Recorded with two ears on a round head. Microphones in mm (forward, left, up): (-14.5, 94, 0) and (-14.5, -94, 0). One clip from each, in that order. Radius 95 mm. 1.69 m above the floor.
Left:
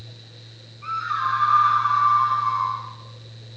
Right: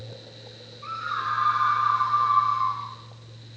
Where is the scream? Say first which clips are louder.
Left 4 dB; 85° left, 10 m; by 2.8 s 80° left, 11 m.